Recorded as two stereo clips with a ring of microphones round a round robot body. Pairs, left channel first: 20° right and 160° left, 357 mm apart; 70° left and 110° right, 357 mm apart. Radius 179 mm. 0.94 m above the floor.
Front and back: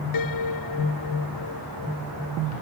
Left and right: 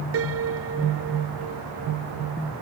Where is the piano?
60° right.